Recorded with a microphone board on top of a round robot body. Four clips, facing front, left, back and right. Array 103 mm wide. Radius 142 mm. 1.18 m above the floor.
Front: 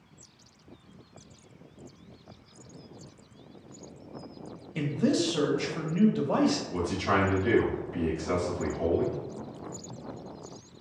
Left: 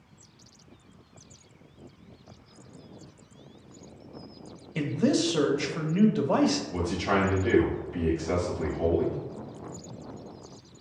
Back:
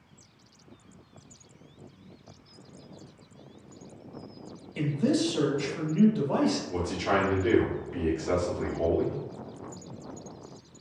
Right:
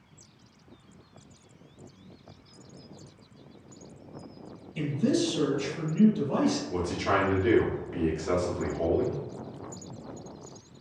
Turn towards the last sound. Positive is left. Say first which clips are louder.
# even, even
turn(degrees=-105)